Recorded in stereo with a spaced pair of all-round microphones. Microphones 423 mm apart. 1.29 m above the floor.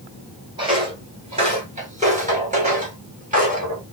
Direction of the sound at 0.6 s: 10° right (ahead or behind).